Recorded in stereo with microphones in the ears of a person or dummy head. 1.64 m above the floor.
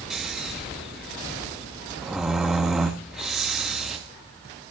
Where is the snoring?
5° right (ahead or behind), 1.1 m.